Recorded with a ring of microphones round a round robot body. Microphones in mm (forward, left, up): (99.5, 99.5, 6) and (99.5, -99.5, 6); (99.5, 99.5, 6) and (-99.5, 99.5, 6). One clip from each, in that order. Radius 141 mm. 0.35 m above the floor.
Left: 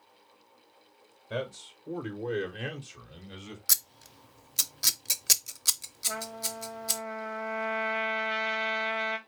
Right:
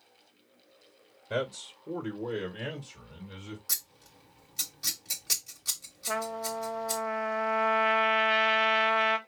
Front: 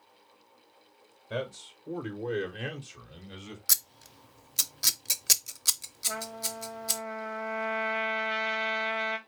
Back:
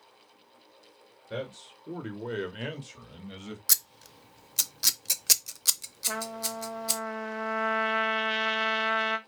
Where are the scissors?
100° left, 0.6 m.